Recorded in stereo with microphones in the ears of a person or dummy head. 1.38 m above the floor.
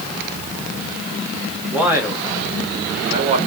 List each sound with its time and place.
1.7 s a man speaking: centre (ahead or behind), 1.9 m; by 3.4 s 30° right (ahead or behind), 2 m